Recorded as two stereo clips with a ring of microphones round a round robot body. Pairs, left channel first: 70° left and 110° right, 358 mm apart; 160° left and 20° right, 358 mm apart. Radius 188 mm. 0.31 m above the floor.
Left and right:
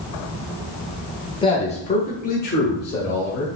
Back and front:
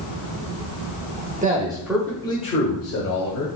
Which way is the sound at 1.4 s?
10° left.